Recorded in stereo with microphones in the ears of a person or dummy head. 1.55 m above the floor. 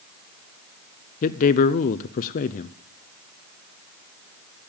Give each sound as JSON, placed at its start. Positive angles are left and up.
{"t": 1.2, "sound": "a man speaking", "side_deg": 40, "distance_m": 0.5}